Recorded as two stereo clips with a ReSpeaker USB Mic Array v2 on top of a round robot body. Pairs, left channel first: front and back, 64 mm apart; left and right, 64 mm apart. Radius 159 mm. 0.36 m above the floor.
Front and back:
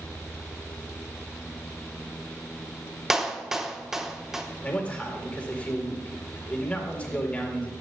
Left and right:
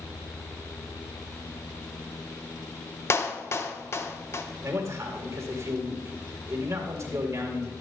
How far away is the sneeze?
I don't hear a sneeze.